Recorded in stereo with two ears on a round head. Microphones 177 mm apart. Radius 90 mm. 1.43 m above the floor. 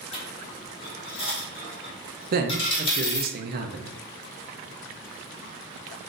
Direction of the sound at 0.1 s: 30° left (ahead or behind).